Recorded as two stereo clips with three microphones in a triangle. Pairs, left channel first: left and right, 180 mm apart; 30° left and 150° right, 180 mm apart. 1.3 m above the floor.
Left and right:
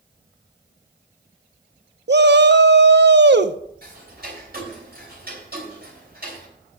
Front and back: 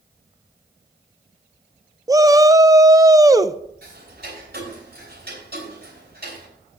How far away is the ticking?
About 4 m.